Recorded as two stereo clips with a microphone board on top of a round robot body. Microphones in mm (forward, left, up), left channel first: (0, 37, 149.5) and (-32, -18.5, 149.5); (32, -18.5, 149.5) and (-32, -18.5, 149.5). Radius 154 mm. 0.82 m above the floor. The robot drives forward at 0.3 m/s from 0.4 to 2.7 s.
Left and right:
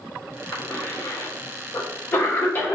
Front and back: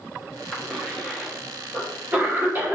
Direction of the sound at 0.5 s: 90° left.